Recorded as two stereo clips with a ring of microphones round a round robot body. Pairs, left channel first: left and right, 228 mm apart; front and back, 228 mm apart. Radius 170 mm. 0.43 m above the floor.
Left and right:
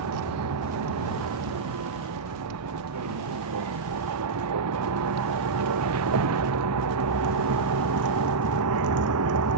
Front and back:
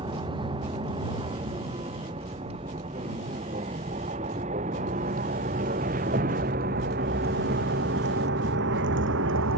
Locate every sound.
0.0 s a vehicle: 105° right; by 9.6 s 130° right